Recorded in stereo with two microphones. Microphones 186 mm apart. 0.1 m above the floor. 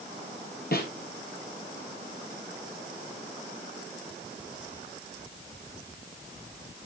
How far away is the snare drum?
About 2 m.